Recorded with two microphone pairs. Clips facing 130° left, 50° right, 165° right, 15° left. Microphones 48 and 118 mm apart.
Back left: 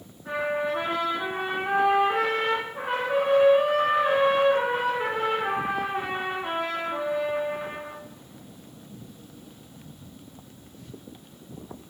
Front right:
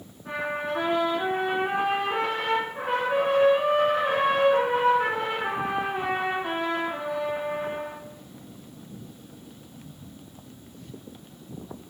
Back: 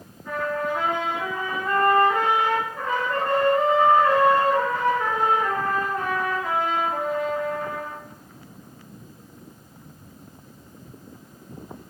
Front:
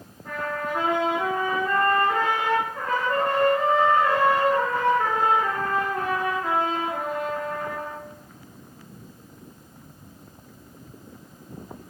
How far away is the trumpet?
About 2 m.